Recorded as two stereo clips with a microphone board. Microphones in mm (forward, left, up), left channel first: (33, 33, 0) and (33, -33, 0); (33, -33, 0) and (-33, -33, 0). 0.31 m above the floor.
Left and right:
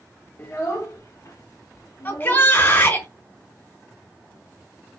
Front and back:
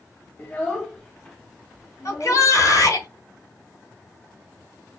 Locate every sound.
0.4 s a child speaking: 50° left, 1.2 m; by 2.5 s 90° left, 2.5 m
2.0 s a shout: 25° left, 3 m